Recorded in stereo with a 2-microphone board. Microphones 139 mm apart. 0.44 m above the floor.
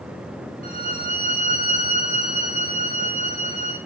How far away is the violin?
About 1.7 m.